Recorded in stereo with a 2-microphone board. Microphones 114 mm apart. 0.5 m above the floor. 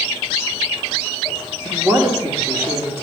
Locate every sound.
1.6 s a woman speaking: 20° right (ahead or behind), 1.4 m